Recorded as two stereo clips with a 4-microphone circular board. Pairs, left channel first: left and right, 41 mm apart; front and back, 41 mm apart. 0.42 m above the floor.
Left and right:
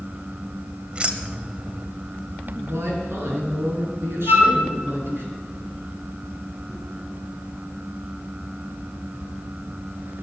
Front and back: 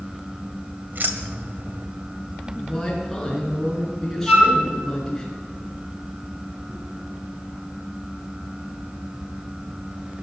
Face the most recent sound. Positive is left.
turn(degrees=-125)